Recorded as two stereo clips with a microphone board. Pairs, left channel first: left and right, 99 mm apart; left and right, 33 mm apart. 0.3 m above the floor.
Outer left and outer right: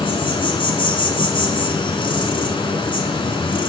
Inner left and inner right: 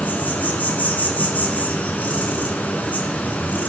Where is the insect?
60° left (ahead or behind), 3 m.